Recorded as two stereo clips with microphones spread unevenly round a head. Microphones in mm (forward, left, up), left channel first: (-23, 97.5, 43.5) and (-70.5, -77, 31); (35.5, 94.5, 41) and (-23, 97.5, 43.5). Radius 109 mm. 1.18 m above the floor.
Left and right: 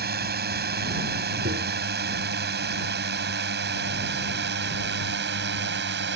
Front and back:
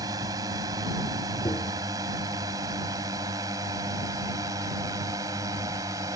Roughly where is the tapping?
Ahead right.